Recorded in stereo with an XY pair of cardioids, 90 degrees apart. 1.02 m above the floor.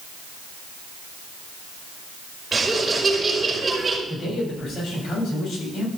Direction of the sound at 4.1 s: 55° left.